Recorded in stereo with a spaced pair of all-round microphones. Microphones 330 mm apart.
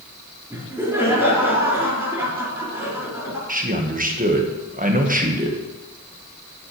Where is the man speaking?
25° right (ahead or behind), 1.2 m.